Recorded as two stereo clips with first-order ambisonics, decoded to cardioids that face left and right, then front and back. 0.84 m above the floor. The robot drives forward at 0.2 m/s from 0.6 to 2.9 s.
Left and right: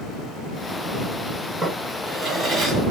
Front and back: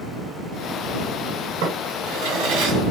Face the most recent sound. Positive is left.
turn(degrees=-170)